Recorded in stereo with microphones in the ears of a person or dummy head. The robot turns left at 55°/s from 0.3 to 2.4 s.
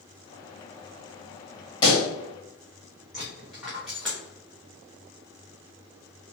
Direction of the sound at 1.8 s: 25° left (ahead or behind).